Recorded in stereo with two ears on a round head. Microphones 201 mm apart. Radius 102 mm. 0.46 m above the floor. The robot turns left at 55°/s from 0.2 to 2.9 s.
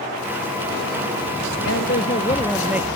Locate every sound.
1.6 s a man speaking: 55° left; by 2.9 s 15° right